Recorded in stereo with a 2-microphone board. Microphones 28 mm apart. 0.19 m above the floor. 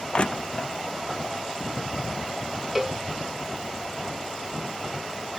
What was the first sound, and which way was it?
Crushing, 45° left (ahead or behind).